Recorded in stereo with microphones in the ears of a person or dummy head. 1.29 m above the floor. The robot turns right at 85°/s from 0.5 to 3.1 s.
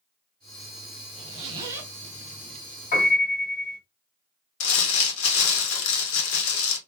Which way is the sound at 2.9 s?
40° left (ahead or behind).